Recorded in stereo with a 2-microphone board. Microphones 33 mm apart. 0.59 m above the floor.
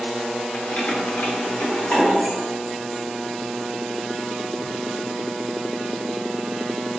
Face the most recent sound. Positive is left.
turn(degrees=30)  # may be behind; listen again after turning